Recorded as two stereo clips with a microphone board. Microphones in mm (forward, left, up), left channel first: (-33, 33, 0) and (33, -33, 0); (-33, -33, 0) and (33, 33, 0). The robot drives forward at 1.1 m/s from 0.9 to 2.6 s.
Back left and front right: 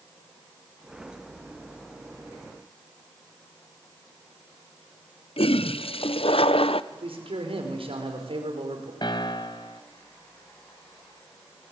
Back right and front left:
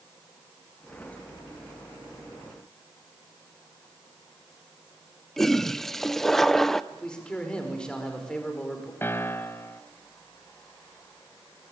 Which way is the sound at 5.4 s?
140° left.